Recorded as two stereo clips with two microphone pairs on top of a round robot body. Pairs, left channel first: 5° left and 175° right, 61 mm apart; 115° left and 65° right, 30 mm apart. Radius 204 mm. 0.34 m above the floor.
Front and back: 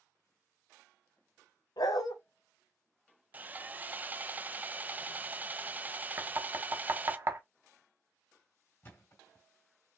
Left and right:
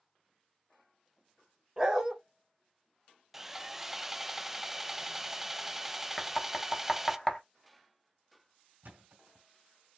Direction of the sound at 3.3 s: 135° right.